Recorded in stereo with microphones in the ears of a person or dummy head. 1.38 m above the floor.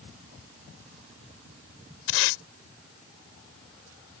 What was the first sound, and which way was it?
Tape being pulled, 75° left (ahead or behind).